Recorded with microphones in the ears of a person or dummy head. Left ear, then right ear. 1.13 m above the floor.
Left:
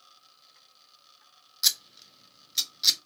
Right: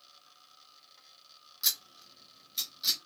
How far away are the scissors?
About 0.6 m.